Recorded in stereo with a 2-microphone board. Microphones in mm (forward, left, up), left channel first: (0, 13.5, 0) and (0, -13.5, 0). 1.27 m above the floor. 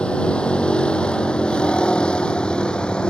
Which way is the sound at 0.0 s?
40° left (ahead or behind).